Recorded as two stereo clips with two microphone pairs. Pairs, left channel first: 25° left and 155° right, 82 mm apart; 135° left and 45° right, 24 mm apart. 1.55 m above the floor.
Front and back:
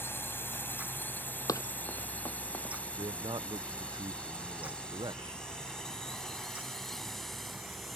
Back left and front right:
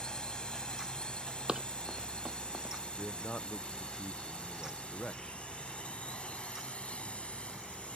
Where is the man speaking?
170° right.